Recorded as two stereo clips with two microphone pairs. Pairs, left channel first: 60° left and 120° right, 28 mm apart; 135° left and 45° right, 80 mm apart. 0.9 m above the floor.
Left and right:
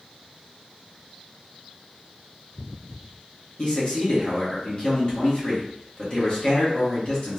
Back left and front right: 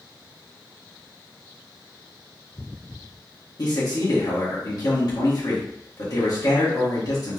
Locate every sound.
3.6 s a man speaking: 115° left, 1.8 m